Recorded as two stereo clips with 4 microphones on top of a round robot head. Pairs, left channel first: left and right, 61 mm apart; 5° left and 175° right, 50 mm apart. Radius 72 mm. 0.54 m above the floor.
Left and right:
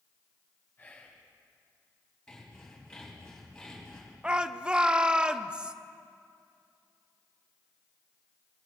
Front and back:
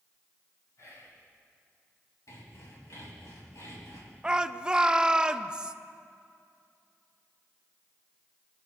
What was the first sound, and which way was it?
Whispering, 30° left.